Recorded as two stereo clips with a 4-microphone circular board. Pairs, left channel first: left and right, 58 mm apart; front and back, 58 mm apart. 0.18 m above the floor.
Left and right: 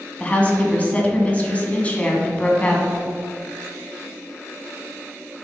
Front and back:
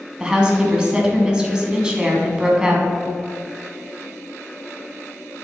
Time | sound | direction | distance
0.2 | a woman speaking | 120° left | 1.2 m